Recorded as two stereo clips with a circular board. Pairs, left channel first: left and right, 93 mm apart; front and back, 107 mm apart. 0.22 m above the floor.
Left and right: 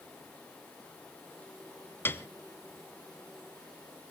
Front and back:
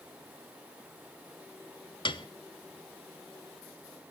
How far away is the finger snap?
No finger snap in this recording.